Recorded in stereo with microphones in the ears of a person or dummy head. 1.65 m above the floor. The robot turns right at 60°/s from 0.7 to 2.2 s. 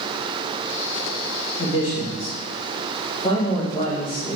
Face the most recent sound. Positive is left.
turn(degrees=150)